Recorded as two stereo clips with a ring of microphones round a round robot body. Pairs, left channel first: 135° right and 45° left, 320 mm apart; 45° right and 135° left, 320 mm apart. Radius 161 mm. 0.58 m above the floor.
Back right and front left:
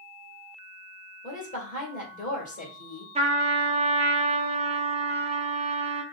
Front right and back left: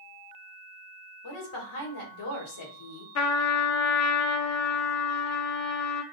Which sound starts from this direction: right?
A woman speaking, at 1.2 s.